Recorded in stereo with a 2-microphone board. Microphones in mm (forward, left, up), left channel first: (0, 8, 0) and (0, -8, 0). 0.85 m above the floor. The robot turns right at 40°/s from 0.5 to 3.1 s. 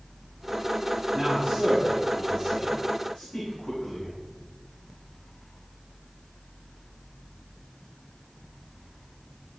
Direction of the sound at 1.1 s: 20° right (ahead or behind).